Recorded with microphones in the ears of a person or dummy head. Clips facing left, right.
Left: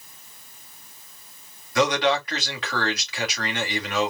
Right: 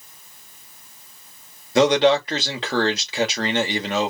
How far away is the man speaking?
About 2 m.